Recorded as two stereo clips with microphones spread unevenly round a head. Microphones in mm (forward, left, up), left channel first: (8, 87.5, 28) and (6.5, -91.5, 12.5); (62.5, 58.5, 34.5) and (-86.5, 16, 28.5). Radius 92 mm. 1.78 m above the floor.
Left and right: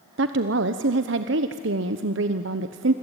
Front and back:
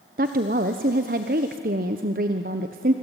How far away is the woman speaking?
About 1.0 m.